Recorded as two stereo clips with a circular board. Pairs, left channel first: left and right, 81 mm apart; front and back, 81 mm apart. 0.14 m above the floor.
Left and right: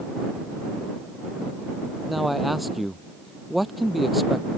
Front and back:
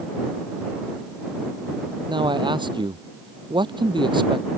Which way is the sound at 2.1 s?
Straight behind.